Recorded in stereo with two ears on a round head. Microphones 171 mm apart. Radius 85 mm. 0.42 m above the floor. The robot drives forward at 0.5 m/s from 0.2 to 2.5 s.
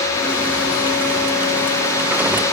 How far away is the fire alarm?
I don't hear a fire alarm.